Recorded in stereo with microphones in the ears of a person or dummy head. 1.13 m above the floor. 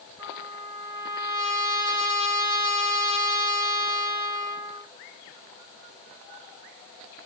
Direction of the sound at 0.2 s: 65° right (ahead or behind).